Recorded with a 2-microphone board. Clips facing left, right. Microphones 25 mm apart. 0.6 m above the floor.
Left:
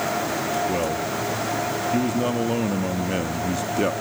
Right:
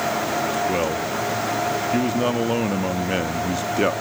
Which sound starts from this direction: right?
A man speaking, at 0.7 s.